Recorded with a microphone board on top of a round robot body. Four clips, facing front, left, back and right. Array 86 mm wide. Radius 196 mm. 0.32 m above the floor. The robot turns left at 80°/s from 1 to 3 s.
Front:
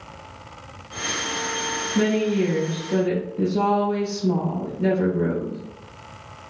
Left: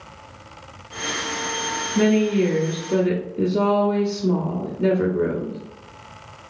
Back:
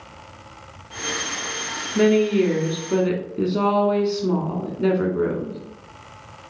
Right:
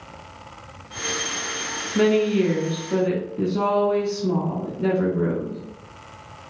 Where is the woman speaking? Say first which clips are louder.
Even, back 4 dB; 95° right, 1.3 m; by 5.6 s straight behind, 1.3 m.